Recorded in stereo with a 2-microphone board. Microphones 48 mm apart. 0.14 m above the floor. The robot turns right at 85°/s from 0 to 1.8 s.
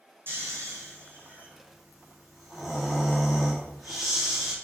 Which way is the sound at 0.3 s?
130° right.